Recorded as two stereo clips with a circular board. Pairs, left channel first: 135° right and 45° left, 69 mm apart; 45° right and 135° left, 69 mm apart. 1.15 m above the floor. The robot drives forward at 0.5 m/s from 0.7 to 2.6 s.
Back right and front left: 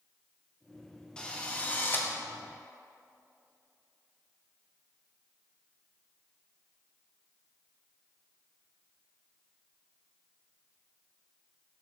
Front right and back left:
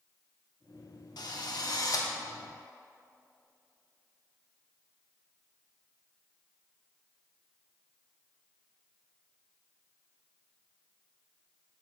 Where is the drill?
60° right, 1.2 m; by 2.1 s 80° right, 1.1 m.